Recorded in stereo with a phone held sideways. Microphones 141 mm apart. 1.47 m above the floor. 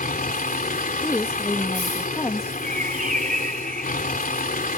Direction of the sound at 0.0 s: 80° left.